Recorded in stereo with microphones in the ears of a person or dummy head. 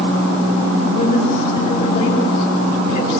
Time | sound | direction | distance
0.8 | a woman speaking | 50° left (ahead or behind) | 9.5 m